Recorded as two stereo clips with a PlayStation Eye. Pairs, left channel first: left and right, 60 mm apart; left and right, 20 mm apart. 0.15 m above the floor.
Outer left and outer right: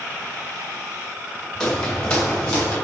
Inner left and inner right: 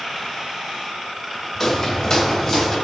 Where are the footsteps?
10° left (ahead or behind), 2 m; by 2.8 s 15° left (ahead or behind), 3.5 m.